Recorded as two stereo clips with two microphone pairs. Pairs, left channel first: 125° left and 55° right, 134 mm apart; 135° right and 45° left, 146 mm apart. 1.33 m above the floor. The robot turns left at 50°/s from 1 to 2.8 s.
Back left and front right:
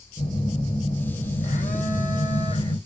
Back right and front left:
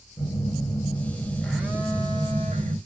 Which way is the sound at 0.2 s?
165° left.